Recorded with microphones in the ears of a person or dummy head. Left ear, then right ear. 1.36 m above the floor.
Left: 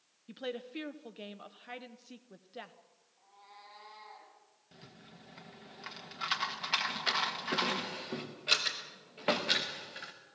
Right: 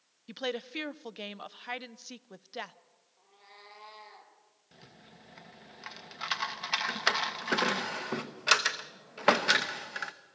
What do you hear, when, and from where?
0.3 s a woman speaking: 35° right (ahead or behind), 0.6 m
3.2 s a cat meowing: 35° right (ahead or behind), 4.5 m
4.7 s a rattle: 5° right (ahead or behind), 1.6 m
6.9 s a drawer: 40° right (ahead or behind), 0.9 m